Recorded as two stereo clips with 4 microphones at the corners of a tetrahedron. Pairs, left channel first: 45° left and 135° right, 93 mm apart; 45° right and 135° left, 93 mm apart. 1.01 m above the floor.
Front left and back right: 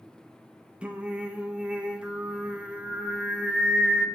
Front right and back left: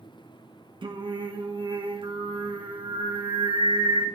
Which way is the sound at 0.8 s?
145° left.